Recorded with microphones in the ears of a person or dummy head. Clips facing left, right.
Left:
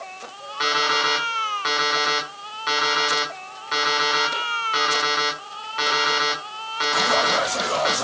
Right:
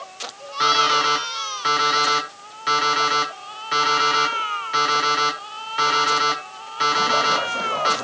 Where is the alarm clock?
5° right (ahead or behind), 5.5 m.